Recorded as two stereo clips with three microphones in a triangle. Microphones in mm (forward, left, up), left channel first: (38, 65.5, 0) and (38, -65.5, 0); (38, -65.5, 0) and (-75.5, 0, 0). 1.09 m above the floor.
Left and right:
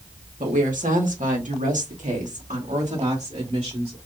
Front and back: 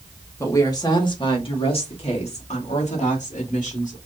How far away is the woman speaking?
About 1.8 m.